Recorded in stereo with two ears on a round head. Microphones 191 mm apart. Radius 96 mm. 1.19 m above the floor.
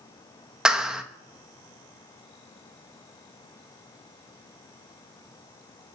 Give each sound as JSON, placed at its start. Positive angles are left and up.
{"t": 0.7, "sound": "a clap", "side_deg": -5, "distance_m": 1.2}